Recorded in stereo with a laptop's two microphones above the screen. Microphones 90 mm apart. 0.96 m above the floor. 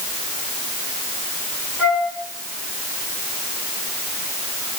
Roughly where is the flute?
Centre.